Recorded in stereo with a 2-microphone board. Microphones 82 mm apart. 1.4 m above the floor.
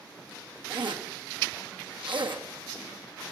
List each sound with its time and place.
0.7 s a zipper: 85° right, 2.0 m